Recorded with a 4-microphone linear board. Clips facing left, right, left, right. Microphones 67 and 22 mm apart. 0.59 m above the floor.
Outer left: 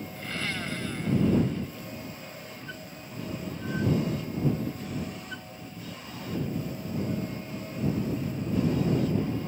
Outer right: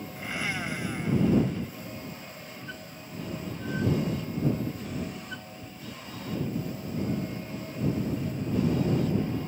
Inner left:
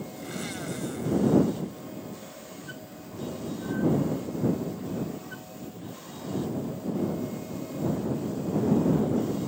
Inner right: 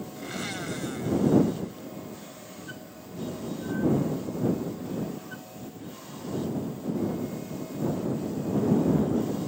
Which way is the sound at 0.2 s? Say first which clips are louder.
Outer right 2 dB, inner right 2 dB; 15° right (ahead or behind).